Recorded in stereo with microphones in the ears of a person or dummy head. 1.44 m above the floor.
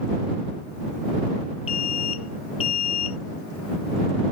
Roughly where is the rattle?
I don't hear a rattle.